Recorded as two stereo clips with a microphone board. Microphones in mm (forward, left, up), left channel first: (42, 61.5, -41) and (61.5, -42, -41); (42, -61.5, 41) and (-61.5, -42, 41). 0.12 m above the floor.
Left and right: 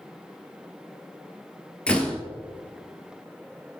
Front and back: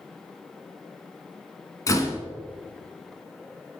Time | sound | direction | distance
1.9 | a door slam | 25° left | 0.9 m